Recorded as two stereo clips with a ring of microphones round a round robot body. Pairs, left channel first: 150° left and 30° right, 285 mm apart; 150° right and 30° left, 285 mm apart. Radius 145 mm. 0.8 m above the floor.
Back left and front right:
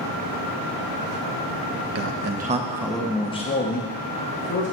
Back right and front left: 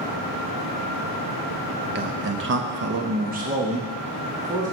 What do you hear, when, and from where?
1.9 s a man speaking: 10° right, 1.0 m; by 4.7 s 105° left, 2.0 m